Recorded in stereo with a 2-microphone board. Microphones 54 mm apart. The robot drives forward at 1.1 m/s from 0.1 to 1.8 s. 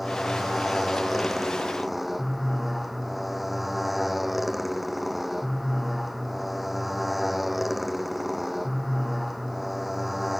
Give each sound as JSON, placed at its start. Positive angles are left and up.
{"t": 0.0, "sound": "a motorcycle", "side_deg": -5}